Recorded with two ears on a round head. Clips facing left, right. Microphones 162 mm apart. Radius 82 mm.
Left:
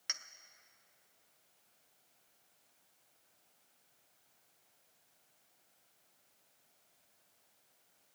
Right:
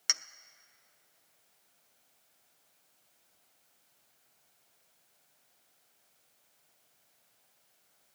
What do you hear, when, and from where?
0.1 s a clink: 60° right (ahead or behind), 0.6 m